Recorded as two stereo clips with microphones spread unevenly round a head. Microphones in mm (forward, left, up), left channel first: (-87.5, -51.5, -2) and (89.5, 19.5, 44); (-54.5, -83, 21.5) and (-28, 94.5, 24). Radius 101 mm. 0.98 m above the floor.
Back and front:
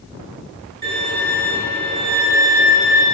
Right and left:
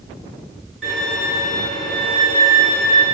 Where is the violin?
5° right, 3 m.